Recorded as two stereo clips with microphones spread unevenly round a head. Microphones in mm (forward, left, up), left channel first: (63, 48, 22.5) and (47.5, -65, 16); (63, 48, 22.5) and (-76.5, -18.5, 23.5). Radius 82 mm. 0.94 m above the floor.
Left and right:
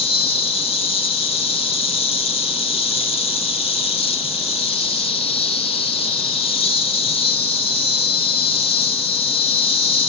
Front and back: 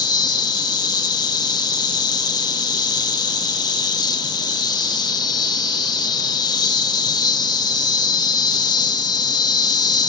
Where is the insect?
80° left, 1.9 m.